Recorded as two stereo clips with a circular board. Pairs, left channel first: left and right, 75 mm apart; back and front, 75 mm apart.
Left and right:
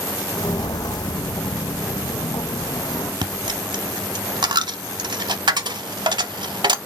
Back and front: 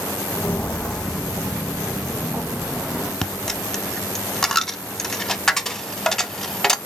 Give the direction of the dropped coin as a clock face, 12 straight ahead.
3 o'clock.